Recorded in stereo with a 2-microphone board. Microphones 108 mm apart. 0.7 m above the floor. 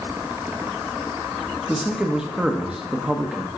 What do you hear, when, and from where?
1.7 s a man speaking: 5° right (ahead or behind), 0.9 m